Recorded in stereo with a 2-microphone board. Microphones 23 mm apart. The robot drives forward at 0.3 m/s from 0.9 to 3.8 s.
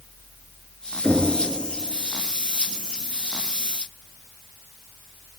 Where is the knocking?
30° left (ahead or behind), 4 m.